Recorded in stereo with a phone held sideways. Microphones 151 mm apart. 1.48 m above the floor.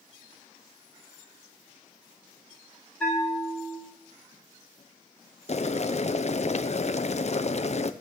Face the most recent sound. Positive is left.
turn(degrees=50)  # may be behind; listen again after turning